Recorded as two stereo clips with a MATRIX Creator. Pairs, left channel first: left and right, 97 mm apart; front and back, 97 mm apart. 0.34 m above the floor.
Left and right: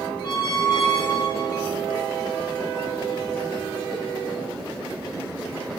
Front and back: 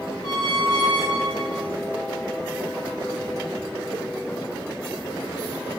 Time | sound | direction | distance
0.2 | a squeak | 40° left | 1.3 m